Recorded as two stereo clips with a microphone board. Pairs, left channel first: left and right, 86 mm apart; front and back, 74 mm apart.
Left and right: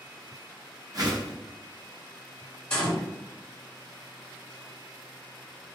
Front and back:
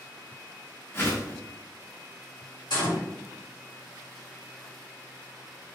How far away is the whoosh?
About 0.7 m.